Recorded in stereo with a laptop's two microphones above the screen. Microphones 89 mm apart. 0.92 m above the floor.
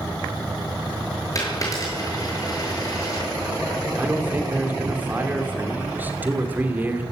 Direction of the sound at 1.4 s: 35° left (ahead or behind).